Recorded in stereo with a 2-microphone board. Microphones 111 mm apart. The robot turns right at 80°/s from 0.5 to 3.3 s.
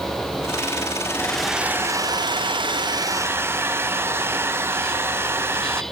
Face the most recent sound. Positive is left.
turn(degrees=-30)